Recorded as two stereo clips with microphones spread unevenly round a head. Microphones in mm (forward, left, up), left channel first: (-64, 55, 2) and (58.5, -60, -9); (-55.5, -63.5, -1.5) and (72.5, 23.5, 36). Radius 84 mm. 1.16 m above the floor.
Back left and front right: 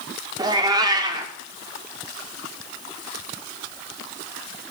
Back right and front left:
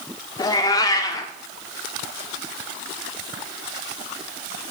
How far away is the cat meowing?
About 0.7 m.